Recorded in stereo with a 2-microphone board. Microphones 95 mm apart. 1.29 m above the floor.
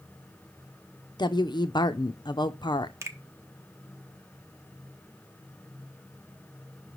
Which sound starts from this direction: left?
A woman speaking, at 1.2 s.